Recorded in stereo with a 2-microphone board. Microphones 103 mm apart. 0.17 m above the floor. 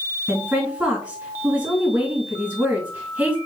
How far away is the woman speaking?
About 2.5 m.